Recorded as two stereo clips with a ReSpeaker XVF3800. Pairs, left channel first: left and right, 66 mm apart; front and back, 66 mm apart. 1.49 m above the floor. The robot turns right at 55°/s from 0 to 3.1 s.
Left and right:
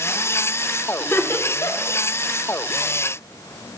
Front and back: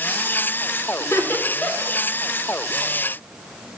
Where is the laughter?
35° left, 0.7 m; by 2.0 s 85° left, 0.7 m.